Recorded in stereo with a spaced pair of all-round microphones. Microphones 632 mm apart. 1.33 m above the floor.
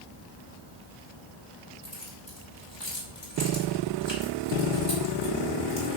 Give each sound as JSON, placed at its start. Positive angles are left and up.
{"t": 1.8, "sound": "keys jangling", "side_deg": 40, "distance_m": 4.0}